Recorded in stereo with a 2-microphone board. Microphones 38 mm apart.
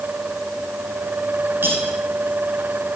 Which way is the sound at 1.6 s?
55° right (ahead or behind).